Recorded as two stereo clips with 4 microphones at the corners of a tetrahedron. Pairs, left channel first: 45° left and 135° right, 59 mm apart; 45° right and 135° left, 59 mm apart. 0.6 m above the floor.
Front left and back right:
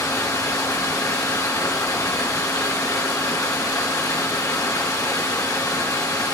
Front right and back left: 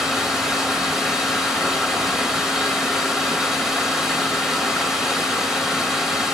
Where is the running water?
50° left, 2.5 m.